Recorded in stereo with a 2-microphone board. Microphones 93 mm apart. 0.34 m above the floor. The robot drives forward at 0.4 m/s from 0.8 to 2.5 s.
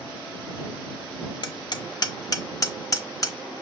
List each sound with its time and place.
1.4 s hammering: 50° left (ahead or behind), 0.6 m; by 3.4 s 40° left (ahead or behind), 0.7 m